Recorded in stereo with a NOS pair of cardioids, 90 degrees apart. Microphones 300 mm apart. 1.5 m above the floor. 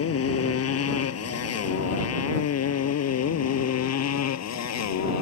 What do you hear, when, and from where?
0.0 s a motorcycle: 50° left; by 5.2 s 60° left